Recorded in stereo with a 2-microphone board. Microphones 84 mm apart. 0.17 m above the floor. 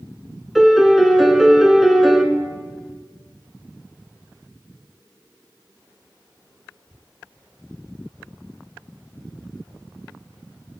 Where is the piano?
Centre (ahead or behind), 1.0 m.